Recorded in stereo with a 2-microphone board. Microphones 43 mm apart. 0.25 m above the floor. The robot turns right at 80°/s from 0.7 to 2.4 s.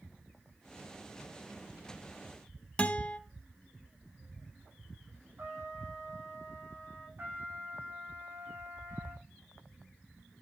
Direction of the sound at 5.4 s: 65° right (ahead or behind).